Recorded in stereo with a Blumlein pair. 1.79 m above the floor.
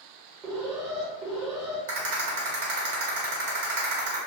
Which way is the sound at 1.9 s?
55° right.